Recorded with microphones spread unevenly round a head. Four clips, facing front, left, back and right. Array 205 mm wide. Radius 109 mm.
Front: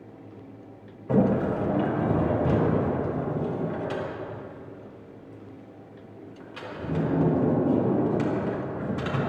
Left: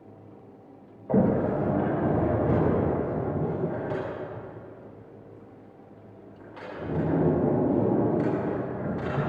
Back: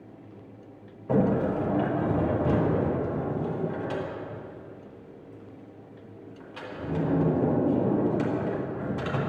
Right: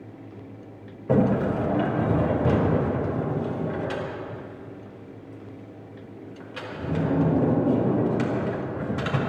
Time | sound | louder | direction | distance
1.1 | a sliding door | right 1 dB, front 1 dB | 105° right | 5 m